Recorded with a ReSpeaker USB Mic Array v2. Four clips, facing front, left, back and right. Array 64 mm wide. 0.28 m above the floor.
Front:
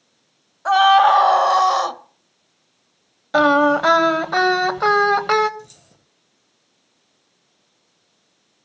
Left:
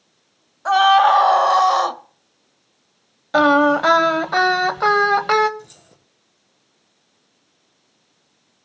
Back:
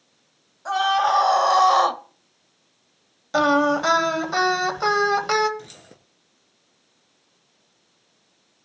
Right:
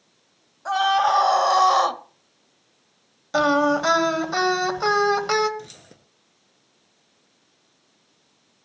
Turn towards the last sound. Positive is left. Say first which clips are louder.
# right 2 dB, even
turn(degrees=-150)